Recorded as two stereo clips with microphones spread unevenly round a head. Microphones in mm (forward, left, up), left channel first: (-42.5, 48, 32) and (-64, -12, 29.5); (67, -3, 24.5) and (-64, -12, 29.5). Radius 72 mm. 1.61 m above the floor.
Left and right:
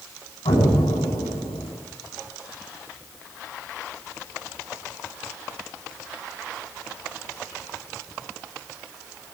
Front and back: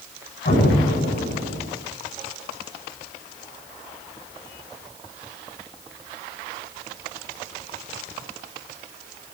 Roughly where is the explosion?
Ahead left.